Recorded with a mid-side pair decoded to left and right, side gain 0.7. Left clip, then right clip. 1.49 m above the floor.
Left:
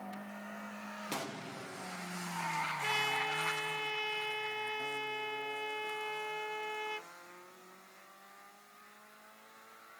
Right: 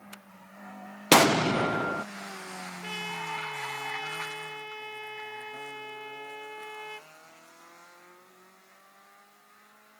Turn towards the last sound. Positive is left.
turn(degrees=10)